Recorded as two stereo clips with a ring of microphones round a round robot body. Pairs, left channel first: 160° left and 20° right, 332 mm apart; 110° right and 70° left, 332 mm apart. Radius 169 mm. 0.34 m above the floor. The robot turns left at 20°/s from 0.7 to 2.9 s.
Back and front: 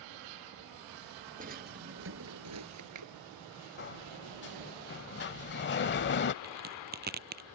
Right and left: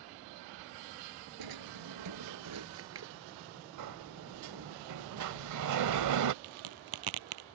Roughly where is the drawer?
Ahead left.